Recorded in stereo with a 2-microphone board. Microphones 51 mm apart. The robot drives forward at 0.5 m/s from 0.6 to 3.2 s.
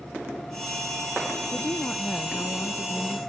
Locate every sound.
1.5 s a woman speaking: 65° left (ahead or behind); by 3.2 s 45° left (ahead or behind)